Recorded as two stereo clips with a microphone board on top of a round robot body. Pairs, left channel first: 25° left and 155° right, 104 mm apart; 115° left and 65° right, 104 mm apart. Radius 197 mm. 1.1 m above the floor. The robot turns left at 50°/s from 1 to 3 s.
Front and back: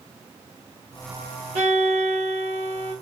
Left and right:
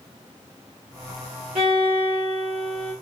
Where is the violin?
105° right, 0.9 m; by 2.9 s 175° right, 0.9 m.